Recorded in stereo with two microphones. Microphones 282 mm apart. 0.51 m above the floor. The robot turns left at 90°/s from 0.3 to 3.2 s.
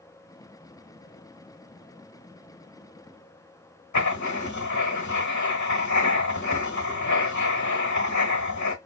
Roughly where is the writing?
Left.